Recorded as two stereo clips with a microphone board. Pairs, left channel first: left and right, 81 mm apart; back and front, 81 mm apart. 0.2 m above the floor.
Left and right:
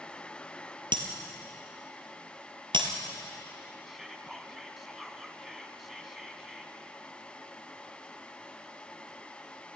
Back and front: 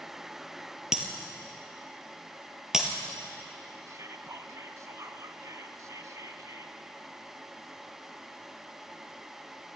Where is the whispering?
5° right, 1.8 m.